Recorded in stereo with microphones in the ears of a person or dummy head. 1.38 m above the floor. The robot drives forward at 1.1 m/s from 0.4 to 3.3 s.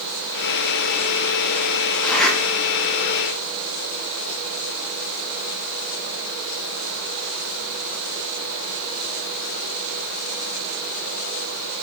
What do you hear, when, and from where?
2.0 s a zipper: 5° left (ahead or behind), 3 m